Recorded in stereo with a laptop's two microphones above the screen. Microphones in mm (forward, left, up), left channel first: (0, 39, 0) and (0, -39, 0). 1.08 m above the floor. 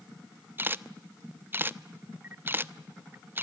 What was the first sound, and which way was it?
A camera shutter, 25° right (ahead or behind).